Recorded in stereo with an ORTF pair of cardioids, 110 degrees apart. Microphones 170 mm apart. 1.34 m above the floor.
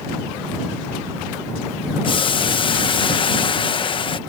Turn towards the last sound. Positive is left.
turn(degrees=30)